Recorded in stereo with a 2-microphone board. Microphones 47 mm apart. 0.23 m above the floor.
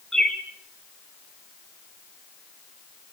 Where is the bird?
10° left (ahead or behind), 2 m.